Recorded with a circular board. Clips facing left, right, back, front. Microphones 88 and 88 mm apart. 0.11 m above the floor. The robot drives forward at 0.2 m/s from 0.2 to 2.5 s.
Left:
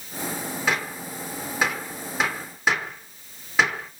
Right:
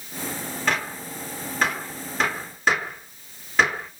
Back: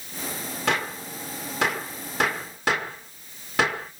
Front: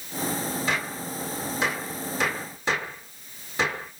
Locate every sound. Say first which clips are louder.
0.7 s a gunshot: right 1 dB, back 2 dB; 170° left, 1.4 m; by 3.9 s 175° left, 1.7 m